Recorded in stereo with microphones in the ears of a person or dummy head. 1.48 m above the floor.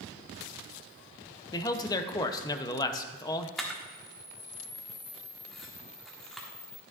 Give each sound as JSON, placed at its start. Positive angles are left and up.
{"t": 1.5, "sound": "a man speaking", "side_deg": 20, "distance_m": 0.7}
{"t": 3.6, "sound": "a camera shutter", "side_deg": 0, "distance_m": 1.3}